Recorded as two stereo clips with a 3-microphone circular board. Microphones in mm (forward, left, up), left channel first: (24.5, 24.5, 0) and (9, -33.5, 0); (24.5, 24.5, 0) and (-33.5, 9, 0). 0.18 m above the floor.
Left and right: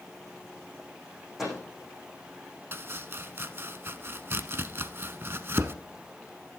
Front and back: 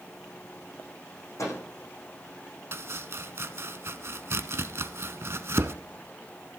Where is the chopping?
140° right, 0.7 m.